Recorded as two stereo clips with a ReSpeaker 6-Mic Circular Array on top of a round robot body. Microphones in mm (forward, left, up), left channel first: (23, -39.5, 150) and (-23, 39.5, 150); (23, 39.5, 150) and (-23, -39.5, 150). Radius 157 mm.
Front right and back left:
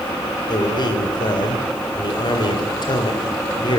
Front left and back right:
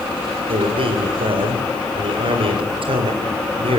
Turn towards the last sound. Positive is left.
turn(degrees=-100)